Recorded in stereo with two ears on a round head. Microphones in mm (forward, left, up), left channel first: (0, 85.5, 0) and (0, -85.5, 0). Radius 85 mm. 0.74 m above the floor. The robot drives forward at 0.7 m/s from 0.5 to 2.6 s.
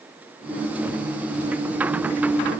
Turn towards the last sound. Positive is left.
No sound to turn to.